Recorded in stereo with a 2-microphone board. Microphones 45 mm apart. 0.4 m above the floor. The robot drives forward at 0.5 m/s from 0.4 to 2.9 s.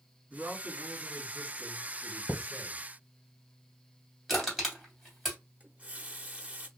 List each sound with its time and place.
0.3 s a man speaking: 65° right (ahead or behind), 1.7 m; by 2.8 s 45° right (ahead or behind), 2 m
2.3 s a thud: 45° left (ahead or behind), 1.3 m; by 2.5 s 40° left (ahead or behind), 1.4 m
4.3 s crushing: 5° left (ahead or behind), 2 m
5.6 s a running tap: 30° right (ahead or behind), 0.7 m